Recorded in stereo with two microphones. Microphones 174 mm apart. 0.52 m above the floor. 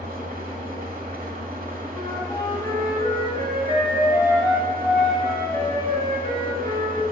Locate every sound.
0.0 s an engine running: 60° right (ahead or behind), 1.1 m
1.9 s a flute: 25° left (ahead or behind), 1.9 m